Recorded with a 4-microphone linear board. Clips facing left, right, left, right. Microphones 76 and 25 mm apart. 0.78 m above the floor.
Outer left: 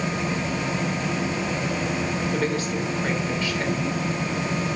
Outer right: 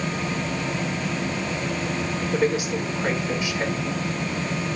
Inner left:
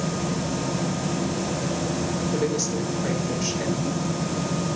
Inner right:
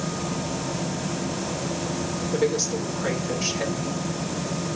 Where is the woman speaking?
15° right (ahead or behind), 2.5 m.